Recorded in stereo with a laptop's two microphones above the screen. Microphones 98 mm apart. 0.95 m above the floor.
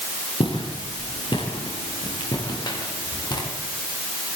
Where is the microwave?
I don't hear a microwave.